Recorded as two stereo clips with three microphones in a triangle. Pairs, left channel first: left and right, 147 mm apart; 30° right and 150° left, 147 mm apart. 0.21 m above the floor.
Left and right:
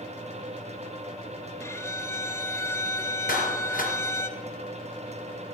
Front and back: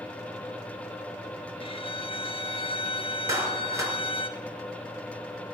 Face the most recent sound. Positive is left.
turn(degrees=85)